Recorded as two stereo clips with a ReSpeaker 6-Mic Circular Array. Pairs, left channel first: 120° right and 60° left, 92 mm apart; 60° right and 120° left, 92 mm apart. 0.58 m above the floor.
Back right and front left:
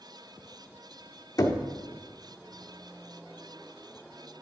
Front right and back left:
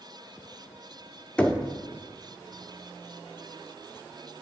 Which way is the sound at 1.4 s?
130° right.